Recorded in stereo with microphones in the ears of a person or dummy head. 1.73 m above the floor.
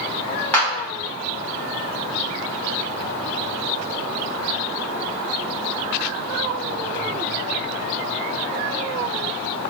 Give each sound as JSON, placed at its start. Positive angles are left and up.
{"t": 0.5, "sound": "a clap", "side_deg": 5, "distance_m": 1.9}